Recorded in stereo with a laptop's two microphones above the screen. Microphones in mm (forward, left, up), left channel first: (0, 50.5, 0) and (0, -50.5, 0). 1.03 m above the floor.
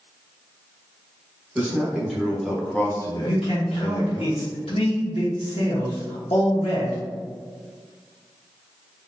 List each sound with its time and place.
1.6 s a man speaking: 10° right (ahead or behind), 1.3 m; by 4.2 s 50° left (ahead or behind), 0.9 m
3.2 s a man speaking: 75° left (ahead or behind), 0.8 m